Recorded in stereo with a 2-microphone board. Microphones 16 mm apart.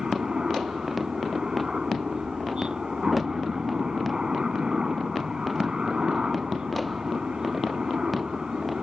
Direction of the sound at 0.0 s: 55° right (ahead or behind).